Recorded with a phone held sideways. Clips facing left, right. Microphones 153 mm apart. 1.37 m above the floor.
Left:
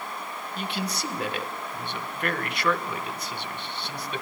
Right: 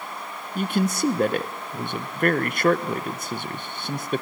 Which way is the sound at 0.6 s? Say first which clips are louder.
Right 9 dB; 45° right (ahead or behind).